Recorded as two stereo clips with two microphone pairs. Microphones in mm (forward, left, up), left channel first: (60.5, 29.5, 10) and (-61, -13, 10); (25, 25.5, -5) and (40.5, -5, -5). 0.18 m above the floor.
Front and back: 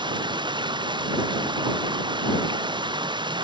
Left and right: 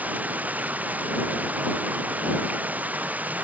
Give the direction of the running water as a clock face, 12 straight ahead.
4 o'clock.